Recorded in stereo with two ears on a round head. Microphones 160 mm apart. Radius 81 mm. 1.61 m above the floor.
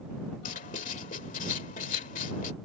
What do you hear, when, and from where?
0.5 s writing: 45° left (ahead or behind)